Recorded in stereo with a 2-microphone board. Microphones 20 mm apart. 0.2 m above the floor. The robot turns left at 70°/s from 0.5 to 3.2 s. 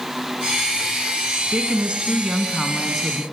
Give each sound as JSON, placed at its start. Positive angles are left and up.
{"t": 1.5, "sound": "a woman speaking", "azimuth_deg": -75, "distance_m": 1.8}